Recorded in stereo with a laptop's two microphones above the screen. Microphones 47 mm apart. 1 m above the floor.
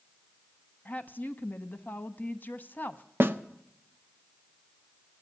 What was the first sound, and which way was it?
A woman speaking, 40° left (ahead or behind).